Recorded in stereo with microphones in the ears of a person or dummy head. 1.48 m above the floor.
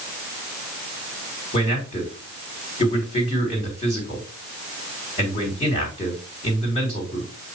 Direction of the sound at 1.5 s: 40° left (ahead or behind).